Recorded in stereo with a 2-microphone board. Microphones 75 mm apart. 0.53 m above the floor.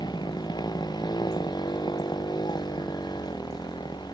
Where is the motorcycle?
75° left (ahead or behind).